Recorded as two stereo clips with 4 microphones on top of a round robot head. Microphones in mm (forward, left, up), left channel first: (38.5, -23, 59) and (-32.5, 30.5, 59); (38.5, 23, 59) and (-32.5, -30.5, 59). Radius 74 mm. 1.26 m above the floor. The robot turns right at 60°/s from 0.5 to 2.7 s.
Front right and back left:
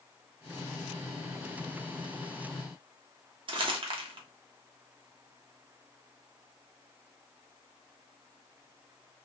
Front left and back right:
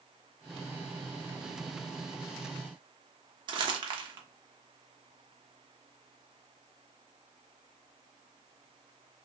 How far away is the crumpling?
About 0.9 m.